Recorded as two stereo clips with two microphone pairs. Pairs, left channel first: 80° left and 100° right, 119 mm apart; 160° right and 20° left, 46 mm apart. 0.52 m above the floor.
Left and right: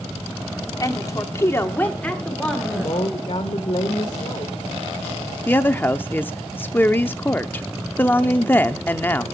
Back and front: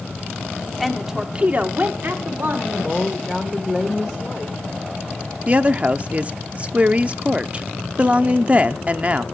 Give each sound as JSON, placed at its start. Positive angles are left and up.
{"t": 0.8, "sound": "a woman speaking", "azimuth_deg": 115, "distance_m": 1.4}
{"t": 2.7, "sound": "a woman speaking", "azimuth_deg": 110, "distance_m": 1.6}
{"t": 5.5, "sound": "a woman speaking", "azimuth_deg": 30, "distance_m": 0.7}